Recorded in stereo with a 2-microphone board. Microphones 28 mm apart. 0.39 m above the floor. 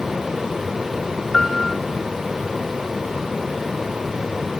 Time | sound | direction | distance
1.3 | a piano | 20° left (ahead or behind) | 0.7 m